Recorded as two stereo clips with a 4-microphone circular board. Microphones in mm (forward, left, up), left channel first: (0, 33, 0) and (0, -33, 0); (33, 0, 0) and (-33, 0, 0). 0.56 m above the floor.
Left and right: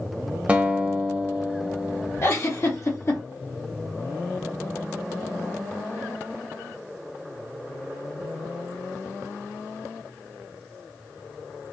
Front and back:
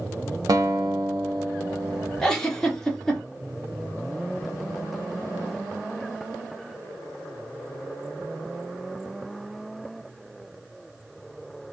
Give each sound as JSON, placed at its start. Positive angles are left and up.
{"t": 0.5, "sound": "a guitar", "azimuth_deg": -160, "distance_m": 0.7}
{"t": 2.2, "sound": "a giggle", "azimuth_deg": 80, "distance_m": 1.2}